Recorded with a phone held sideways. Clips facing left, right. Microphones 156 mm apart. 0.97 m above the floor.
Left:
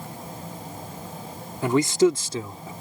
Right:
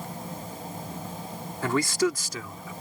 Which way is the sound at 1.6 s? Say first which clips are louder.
Left 6 dB; 20° left (ahead or behind).